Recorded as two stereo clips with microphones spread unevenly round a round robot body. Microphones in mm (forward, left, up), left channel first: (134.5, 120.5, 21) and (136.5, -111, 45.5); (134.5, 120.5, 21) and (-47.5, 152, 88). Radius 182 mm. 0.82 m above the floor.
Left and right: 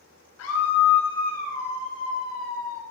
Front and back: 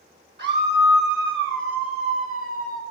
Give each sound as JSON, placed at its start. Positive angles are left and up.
{"t": 0.4, "sound": "a scream", "azimuth_deg": 140, "distance_m": 3.5}